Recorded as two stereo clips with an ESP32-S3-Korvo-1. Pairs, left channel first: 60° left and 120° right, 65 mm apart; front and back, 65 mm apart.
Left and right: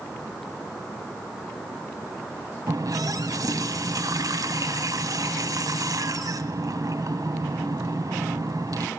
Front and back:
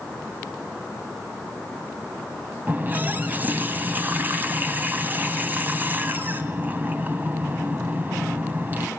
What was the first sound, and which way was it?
A running tap, 120° right.